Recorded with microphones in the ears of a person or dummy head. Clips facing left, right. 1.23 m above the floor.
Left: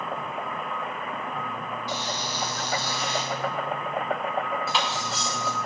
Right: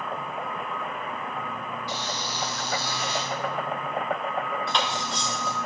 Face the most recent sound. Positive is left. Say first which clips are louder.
# even
turn(degrees=10)  # may be behind; listen again after turning